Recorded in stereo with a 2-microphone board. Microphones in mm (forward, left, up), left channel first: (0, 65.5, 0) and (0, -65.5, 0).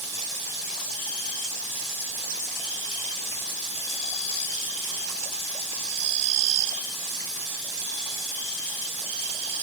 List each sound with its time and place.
Only background noise.